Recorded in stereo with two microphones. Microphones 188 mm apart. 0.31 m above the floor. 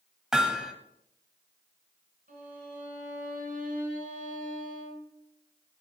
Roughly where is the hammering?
Centre.